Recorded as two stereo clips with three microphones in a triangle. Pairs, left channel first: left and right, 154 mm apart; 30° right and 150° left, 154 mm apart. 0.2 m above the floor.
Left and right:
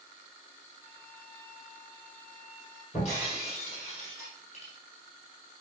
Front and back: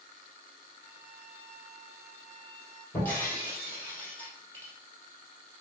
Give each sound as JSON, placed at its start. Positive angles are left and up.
{"t": 0.8, "sound": "a violin", "azimuth_deg": 55, "distance_m": 3.5}
{"t": 2.9, "sound": "breaking glass", "azimuth_deg": 50, "distance_m": 3.5}